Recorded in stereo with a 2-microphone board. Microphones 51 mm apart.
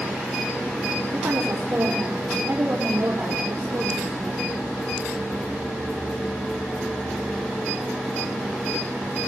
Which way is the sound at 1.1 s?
60° right (ahead or behind).